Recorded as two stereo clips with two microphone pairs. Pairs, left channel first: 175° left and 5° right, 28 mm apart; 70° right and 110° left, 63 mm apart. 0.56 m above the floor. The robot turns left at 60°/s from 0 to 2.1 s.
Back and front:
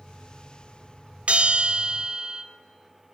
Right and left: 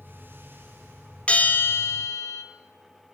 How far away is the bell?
About 1.7 m.